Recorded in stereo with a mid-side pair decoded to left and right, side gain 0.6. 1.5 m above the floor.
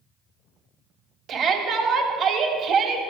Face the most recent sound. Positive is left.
turn(degrees=-50)